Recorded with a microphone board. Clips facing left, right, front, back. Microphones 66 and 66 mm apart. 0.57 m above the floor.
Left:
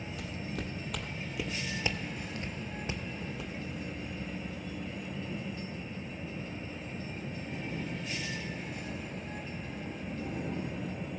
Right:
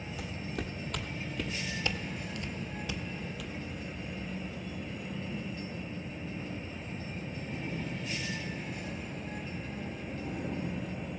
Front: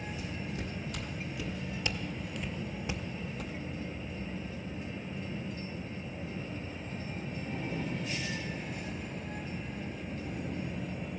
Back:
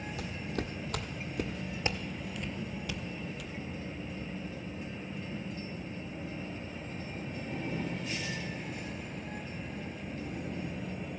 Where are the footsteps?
Straight behind, 1.4 m; by 3.5 s 35° left, 1.0 m.